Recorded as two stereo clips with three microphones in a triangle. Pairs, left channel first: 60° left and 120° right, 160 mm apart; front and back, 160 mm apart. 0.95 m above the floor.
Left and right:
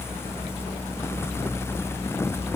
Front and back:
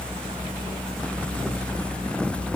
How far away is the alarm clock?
No alarm clock in this recording.